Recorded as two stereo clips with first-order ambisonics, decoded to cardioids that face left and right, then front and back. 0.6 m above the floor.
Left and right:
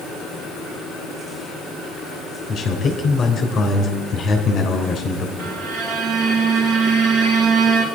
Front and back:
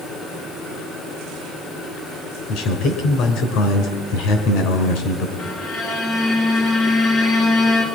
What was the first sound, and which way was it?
A man speaking, 25° left.